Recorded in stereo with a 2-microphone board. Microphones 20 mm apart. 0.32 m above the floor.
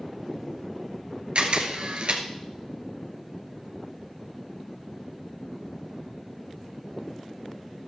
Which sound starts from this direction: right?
A camera shutter, at 1.4 s.